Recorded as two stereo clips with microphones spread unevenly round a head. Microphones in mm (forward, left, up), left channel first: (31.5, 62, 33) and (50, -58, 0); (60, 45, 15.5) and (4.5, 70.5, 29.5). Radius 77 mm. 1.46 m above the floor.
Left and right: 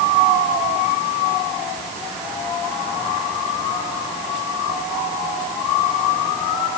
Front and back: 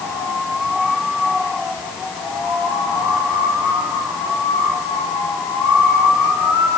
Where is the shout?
I don't hear a shout.